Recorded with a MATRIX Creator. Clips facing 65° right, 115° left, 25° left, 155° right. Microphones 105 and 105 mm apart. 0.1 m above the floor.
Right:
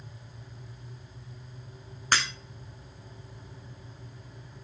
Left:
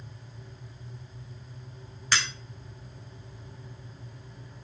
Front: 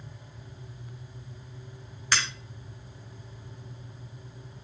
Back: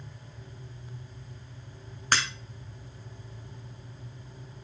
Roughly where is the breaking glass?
Right.